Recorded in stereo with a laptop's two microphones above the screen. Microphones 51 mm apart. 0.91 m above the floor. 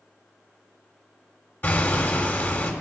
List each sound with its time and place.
1.6 s hammering: 45° left (ahead or behind), 3.5 m